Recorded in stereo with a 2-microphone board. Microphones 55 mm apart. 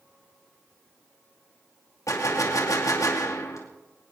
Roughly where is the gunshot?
Left.